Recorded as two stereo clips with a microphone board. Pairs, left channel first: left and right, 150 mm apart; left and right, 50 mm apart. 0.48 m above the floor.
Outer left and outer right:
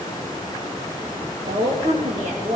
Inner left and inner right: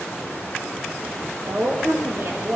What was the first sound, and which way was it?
A woman speaking, 60° right (ahead or behind).